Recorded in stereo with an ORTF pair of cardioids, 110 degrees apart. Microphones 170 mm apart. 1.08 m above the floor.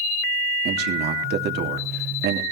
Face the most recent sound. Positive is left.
turn(degrees=-70)